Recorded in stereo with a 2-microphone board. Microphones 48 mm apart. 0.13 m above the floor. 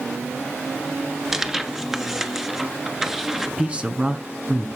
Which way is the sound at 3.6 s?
25° right (ahead or behind).